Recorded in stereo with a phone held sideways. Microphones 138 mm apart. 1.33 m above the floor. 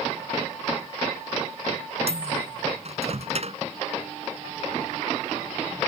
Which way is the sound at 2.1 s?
55° right (ahead or behind).